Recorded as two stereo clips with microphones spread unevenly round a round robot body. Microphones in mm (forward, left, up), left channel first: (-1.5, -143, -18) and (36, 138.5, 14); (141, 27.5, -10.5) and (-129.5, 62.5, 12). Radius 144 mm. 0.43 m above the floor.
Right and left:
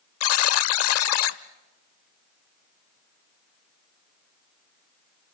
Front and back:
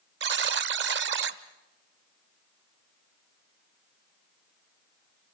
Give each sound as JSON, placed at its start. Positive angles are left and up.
{"t": 0.2, "sound": "a buzzer", "azimuth_deg": -130, "distance_m": 0.6}